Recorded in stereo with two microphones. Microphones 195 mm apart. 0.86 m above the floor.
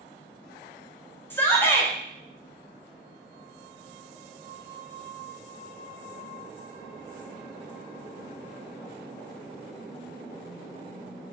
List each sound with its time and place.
1.3 s a shout: 10° left (ahead or behind), 0.6 m